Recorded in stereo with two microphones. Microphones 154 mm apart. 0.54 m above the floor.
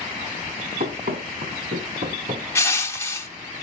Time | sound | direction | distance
0.8 | running footsteps | 75° right (ahead or behind) | 2 m
2.5 | crushing | 20° left (ahead or behind) | 0.8 m